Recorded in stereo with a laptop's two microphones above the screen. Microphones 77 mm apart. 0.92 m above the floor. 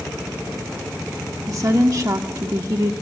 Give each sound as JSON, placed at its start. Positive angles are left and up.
{"t": 1.5, "sound": "a woman speaking", "side_deg": -50, "distance_m": 1.6}